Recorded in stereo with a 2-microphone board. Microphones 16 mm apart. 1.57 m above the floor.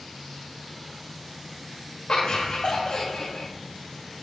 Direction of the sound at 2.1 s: 70° left (ahead or behind).